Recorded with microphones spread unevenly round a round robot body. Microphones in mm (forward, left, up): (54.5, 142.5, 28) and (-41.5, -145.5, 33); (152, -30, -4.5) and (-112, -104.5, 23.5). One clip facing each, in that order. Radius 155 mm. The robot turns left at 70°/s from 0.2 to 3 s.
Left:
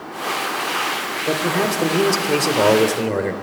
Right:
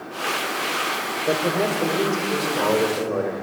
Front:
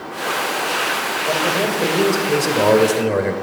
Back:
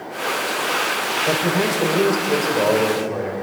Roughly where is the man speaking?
Behind left.